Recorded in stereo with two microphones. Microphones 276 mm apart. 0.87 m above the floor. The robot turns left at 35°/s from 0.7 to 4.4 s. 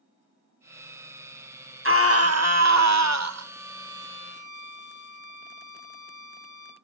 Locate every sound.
1.9 s a scream: 50° right, 1.0 m; by 3.5 s 110° right, 1.0 m
3.4 s a violin: 70° left, 1.4 m; by 6.7 s 35° left, 1.4 m